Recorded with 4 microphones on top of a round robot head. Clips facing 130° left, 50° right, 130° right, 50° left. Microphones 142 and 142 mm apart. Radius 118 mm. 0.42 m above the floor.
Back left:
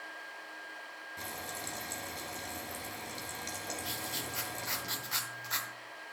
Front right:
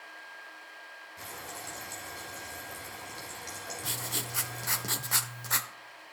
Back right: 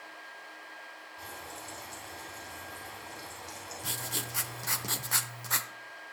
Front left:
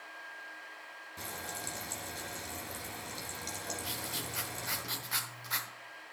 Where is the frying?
60° left, 2 m.